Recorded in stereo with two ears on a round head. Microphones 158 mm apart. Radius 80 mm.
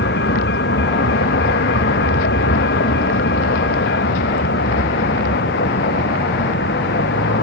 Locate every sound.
0.0 s a vehicle: 60° left (ahead or behind)